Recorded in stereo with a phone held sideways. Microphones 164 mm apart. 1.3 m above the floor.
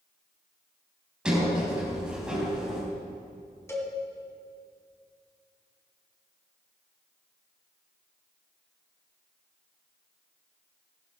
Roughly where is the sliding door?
Centre.